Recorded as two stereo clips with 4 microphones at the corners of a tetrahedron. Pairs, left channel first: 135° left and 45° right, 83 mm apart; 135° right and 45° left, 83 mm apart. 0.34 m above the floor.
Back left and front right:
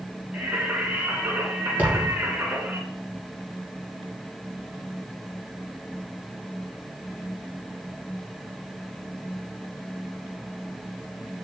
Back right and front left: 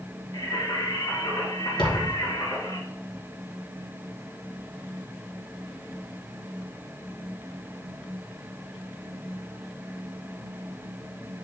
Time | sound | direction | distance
0.3 | singing | 115° right | 2.5 m
1.8 | a thud | 115° right | 2.5 m